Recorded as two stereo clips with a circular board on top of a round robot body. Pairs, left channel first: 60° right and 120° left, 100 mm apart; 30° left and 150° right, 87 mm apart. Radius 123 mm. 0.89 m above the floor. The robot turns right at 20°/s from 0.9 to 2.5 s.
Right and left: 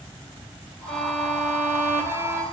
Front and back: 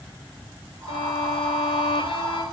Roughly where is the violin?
Ahead left.